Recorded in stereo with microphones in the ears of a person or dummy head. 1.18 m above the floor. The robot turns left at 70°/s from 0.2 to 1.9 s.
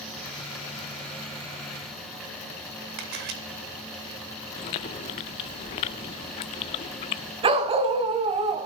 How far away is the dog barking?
About 2 m.